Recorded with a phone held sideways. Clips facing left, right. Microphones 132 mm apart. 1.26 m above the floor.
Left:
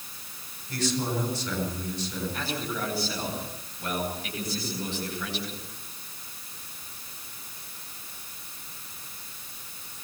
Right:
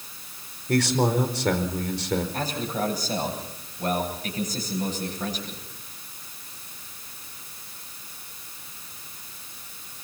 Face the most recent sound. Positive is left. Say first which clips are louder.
# right 4 dB
turn(degrees=-40)  # may be behind; listen again after turning